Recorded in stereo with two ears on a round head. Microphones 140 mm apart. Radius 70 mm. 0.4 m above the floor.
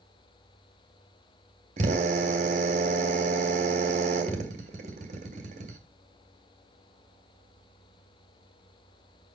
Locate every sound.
1.8 s a drill: 50° right (ahead or behind), 2 m